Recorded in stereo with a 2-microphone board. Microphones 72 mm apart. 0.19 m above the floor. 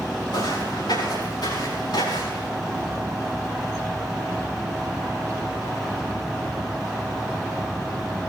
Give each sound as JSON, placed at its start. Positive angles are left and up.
{"t": 0.3, "sound": "footsteps", "side_deg": 75, "distance_m": 7.0}